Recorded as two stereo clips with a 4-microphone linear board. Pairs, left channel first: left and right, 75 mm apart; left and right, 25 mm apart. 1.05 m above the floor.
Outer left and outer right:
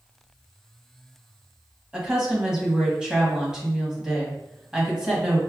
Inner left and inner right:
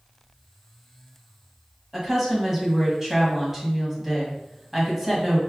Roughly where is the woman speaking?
Centre.